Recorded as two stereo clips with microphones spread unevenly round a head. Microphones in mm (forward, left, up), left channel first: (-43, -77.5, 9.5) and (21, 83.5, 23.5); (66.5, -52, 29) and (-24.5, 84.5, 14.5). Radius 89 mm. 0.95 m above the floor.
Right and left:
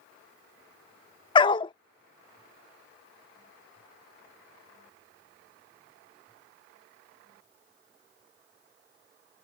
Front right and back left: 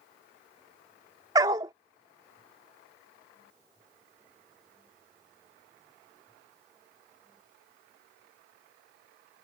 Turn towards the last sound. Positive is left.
turn(degrees=-170)